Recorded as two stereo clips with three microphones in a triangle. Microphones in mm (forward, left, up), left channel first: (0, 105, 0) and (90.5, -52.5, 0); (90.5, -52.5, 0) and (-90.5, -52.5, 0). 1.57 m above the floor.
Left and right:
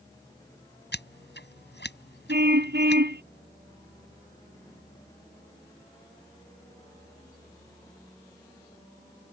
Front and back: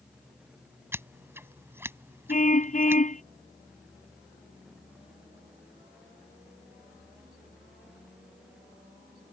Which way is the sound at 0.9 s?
105° left.